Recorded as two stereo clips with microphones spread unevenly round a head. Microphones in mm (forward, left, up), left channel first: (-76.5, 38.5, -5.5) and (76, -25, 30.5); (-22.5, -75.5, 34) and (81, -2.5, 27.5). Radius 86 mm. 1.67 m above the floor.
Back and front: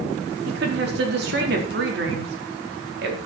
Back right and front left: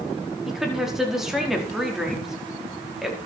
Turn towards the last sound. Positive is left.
turn(degrees=-50)